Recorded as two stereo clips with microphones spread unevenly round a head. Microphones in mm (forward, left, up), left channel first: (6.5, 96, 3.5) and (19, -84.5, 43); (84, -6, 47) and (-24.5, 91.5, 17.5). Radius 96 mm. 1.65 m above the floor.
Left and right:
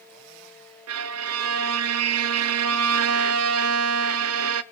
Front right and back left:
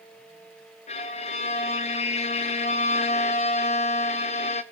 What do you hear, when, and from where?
0.9 s a violin: 100° right, 0.5 m